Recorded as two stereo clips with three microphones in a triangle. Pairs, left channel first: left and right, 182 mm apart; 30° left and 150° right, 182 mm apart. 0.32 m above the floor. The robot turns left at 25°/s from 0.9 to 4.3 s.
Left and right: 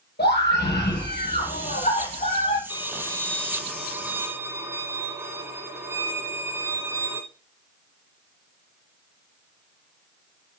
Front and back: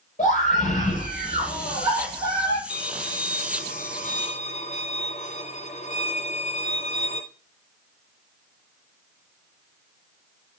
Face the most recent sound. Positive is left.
turn(degrees=-15)